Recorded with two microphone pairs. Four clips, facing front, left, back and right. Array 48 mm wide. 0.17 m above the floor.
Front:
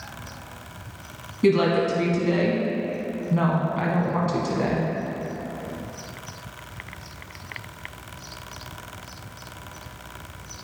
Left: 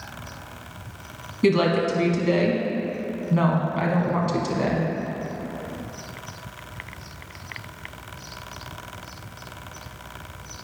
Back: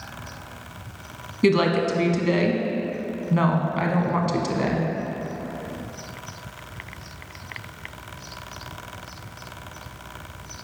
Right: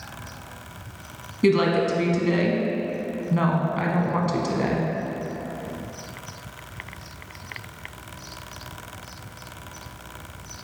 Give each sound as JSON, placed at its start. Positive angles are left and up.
{"t": 1.4, "sound": "a woman speaking", "azimuth_deg": -170, "distance_m": 1.0}